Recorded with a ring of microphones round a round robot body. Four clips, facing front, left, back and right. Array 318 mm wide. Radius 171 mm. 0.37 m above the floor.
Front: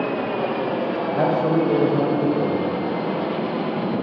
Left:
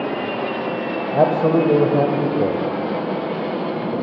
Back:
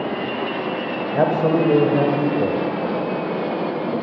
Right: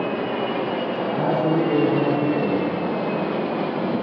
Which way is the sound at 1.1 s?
115° left.